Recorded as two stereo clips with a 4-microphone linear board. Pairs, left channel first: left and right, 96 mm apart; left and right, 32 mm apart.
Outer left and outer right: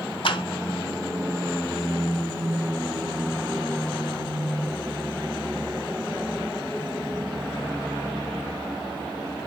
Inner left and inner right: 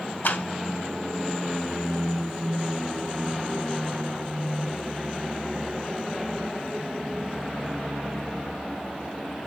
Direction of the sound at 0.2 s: 60° left (ahead or behind).